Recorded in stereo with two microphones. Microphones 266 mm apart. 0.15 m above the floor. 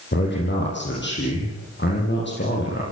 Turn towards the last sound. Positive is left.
turn(degrees=45)  # may be behind; listen again after turning